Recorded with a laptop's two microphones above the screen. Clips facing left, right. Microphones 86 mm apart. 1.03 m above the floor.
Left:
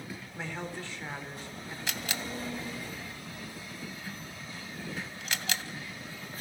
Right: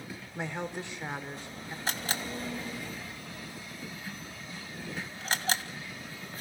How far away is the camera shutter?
About 1.7 m.